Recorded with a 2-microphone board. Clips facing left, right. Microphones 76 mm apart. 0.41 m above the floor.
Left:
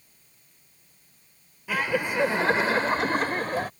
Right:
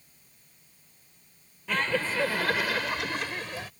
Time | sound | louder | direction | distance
1.7 | laughter | left 2 dB | 10° left (ahead or behind) | ?